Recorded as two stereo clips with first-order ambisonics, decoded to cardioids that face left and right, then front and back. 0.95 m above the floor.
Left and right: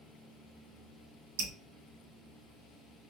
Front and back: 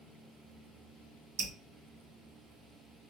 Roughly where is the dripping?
Behind right.